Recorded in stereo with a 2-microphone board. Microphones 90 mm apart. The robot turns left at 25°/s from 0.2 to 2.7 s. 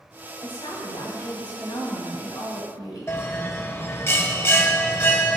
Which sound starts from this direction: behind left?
A woman speaking, at 0.4 s.